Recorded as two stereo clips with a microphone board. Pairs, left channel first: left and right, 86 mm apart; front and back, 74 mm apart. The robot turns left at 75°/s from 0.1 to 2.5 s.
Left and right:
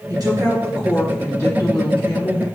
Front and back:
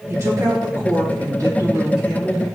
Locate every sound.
0.1 s a woman speaking: 125° right, 3 m; by 2.5 s 60° left, 3 m